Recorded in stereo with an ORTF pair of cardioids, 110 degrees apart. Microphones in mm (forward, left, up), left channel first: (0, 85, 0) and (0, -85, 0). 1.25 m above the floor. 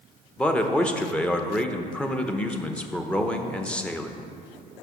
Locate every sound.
0.4 s a man speaking: 5° left, 0.8 m